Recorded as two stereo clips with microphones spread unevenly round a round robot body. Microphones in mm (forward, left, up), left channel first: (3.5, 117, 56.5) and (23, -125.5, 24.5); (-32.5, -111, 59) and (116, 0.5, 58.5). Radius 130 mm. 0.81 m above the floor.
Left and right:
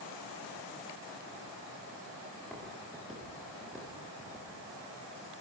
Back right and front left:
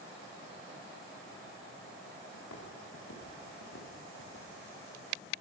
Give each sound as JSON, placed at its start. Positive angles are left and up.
{"t": 2.3, "sound": "footsteps", "azimuth_deg": -175, "distance_m": 7.0}